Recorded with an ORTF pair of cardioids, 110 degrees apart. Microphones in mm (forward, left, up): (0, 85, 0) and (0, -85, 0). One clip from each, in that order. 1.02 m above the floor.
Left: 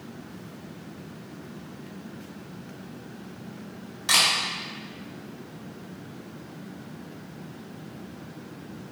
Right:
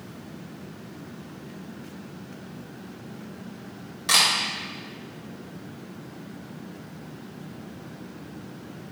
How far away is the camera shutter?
About 1.8 m.